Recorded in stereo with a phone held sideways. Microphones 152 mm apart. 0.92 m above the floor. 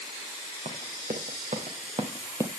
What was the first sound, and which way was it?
Running footsteps, 60° right (ahead or behind).